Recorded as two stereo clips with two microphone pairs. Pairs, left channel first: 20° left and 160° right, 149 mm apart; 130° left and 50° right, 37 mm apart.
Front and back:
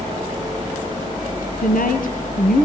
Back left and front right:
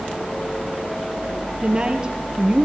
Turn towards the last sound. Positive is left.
turn(degrees=15)